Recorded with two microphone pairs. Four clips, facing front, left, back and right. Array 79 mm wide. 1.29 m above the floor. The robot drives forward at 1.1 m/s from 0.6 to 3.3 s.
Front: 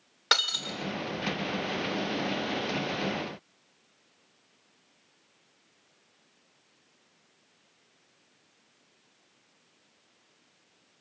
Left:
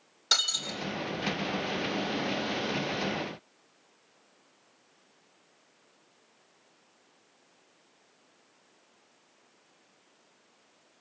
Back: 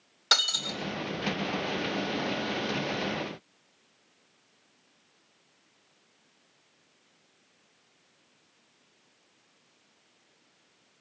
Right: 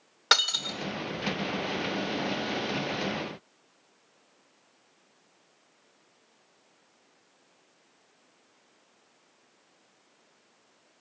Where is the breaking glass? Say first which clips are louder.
Right 7 dB, front 1 dB; 65° right, 2.5 m; by 0.8 s 70° right, 2.5 m.